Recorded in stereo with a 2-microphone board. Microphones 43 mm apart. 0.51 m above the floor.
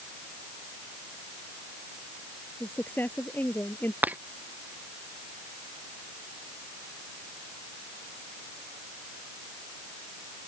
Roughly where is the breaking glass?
Right.